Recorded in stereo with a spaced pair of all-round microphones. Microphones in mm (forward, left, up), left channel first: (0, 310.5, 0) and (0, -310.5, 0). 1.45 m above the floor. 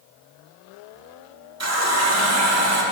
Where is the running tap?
25° right (ahead or behind), 0.8 m.